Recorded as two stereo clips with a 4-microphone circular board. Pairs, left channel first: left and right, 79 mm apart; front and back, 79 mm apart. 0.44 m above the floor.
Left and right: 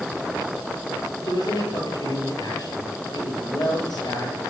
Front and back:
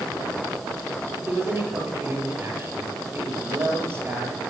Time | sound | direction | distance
1.2 | a man speaking | 120° left | 8 m